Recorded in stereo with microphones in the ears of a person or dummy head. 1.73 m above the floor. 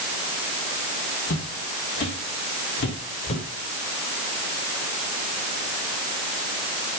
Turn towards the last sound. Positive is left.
turn(degrees=55)  # may be behind; listen again after turning